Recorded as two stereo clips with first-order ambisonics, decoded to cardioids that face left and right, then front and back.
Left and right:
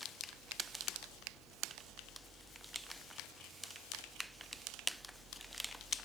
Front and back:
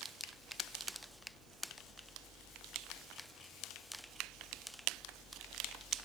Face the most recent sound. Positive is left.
No sound to turn to.